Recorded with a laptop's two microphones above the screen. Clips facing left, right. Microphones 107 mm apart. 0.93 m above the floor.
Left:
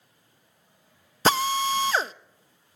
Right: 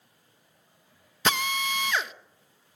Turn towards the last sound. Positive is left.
turn(degrees=35)  # may be behind; listen again after turning